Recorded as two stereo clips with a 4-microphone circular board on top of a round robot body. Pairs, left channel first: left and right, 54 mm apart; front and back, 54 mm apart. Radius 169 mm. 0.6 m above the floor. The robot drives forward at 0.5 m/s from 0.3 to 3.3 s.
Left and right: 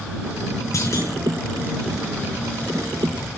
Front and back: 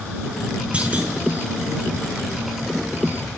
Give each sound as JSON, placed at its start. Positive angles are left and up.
{"t": 0.7, "sound": "a clunk", "azimuth_deg": 115, "distance_m": 6.5}